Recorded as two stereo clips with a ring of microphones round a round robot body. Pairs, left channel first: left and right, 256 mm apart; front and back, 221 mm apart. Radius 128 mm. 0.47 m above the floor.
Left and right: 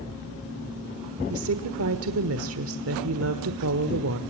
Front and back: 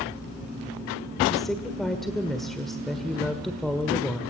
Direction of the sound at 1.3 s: 90° right.